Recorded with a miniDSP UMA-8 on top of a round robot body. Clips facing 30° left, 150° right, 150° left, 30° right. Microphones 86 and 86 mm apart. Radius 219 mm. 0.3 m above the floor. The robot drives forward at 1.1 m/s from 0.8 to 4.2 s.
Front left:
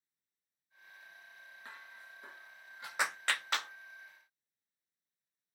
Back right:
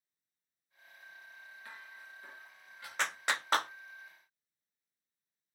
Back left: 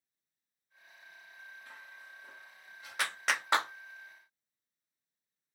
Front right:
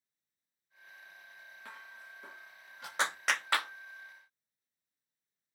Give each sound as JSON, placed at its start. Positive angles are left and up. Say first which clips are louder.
{"t": 1.6, "sound": "dishes clattering", "louder": "even, front right 1 dB", "azimuth_deg": -30, "distance_m": 6.5}
{"t": 3.0, "sound": "a clap", "louder": "back right 1 dB, front right 1 dB", "azimuth_deg": -35, "distance_m": 0.8}